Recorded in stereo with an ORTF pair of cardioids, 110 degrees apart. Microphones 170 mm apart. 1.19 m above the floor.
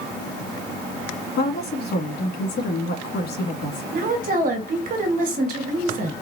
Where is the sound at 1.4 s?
70° left, 2 m.